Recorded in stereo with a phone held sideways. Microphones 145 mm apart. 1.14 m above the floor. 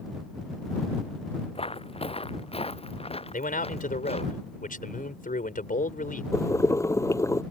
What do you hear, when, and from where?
1.6 s footsteps: 40° left (ahead or behind); by 4.3 s 45° left (ahead or behind)
3.3 s a man speaking: 75° left (ahead or behind)
6.3 s boiling: 20° left (ahead or behind)